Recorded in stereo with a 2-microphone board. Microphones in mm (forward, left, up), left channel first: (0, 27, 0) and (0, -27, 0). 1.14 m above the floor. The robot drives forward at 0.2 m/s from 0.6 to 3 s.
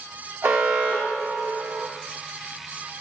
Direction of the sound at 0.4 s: 70° right (ahead or behind).